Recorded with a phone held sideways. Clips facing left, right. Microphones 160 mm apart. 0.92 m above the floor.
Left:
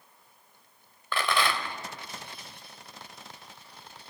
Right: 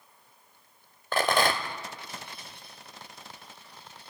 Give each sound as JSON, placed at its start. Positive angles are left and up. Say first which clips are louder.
{"t": 1.1, "sound": "a rattle", "louder": "right 3 dB", "side_deg": -45, "distance_m": 1.3}